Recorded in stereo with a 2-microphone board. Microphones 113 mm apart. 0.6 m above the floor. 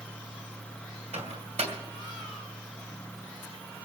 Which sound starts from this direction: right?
A microwave, at 1.1 s.